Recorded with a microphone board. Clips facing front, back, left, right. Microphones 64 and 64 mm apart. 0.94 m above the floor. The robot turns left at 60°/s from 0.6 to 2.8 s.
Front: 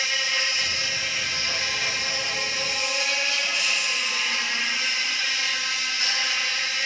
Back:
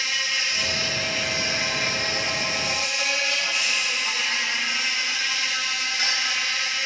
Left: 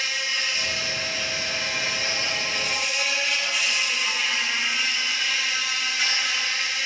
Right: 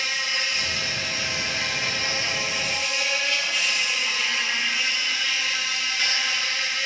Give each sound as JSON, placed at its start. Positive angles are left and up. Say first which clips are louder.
{"t": 0.0, "sound": "an insect", "louder": "front 1 dB, right 1 dB", "azimuth_deg": -55, "distance_m": 4.5}